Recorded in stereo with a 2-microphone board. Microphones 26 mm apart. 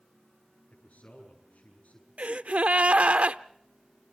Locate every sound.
0.7 s a man speaking: 85° left, 8 m
2.2 s a gasp: 65° right (ahead or behind), 0.6 m